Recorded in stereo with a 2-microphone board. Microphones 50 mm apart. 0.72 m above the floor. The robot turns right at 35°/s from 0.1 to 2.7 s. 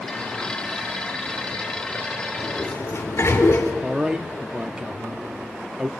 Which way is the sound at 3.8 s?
20° right (ahead or behind).